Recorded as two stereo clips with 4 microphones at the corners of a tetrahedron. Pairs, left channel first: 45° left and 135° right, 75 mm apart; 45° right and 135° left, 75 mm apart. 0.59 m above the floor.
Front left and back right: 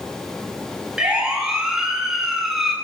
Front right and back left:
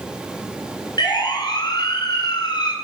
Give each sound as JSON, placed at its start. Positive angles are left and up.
{"t": 1.0, "sound": "a siren", "azimuth_deg": -55, "distance_m": 9.0}